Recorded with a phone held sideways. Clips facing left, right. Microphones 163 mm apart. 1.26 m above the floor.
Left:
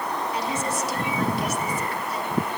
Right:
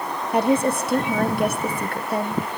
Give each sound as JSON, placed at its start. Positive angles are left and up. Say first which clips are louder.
{"t": 0.3, "sound": "a woman speaking", "louder": "right 13 dB", "side_deg": -60, "distance_m": 0.8}